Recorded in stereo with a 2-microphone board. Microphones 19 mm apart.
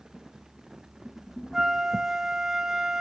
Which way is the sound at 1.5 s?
20° right (ahead or behind).